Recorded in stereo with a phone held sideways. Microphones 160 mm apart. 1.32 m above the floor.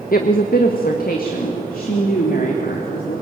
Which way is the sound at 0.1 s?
70° left (ahead or behind).